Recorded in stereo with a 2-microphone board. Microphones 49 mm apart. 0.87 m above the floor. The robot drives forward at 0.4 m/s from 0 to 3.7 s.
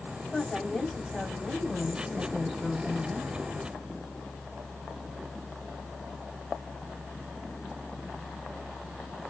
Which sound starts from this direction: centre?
A woman speaking, at 0.3 s.